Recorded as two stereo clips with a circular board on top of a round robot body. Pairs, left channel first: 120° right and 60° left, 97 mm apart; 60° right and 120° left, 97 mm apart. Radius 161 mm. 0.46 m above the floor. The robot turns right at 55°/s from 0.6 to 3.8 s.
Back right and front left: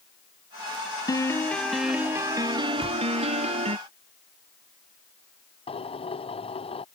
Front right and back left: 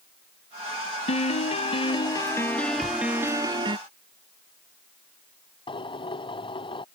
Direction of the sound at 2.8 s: 70° left.